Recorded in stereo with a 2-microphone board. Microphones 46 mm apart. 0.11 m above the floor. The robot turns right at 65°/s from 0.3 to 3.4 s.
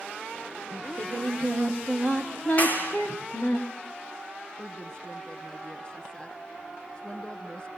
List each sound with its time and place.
0.7 s singing: 95° right, 4.5 m; by 3.6 s 80° left, 4.5 m
2.6 s a clap: 35° left (ahead or behind), 4 m; by 3.0 s 60° left (ahead or behind), 4 m
4.6 s a woman speaking: 20° left (ahead or behind), 1.3 m